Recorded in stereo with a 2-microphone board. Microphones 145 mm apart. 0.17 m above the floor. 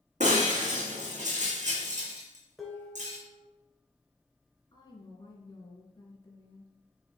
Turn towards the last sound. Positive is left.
turn(degrees=35)  # may be behind; listen again after turning